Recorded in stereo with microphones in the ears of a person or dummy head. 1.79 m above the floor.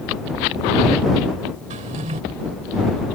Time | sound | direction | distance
1.7 | a drawer | 45° right (ahead or behind) | ?